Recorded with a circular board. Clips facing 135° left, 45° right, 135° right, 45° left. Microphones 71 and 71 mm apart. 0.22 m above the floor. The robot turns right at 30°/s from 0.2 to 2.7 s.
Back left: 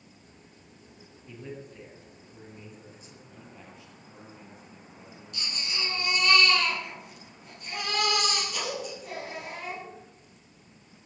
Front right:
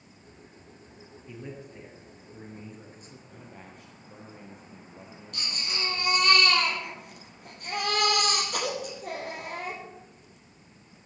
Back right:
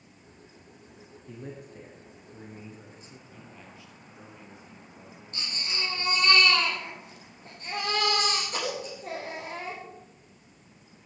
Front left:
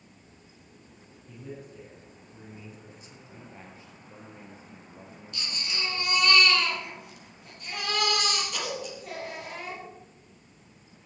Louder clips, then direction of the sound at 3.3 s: Front right 1 dB, front left 5 dB; 10° right.